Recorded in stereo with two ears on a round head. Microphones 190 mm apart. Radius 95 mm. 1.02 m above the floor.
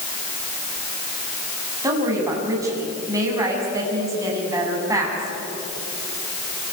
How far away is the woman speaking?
About 7.5 m.